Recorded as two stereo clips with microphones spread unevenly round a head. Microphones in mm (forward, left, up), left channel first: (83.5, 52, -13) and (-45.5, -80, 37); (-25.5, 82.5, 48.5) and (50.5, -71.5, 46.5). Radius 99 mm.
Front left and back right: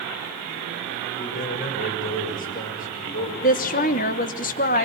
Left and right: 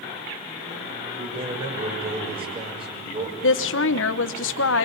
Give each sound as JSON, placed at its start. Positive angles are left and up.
{"t": 1.2, "sound": "a man speaking", "azimuth_deg": -5, "distance_m": 7.0}
{"t": 3.4, "sound": "a woman speaking", "azimuth_deg": 100, "distance_m": 1.1}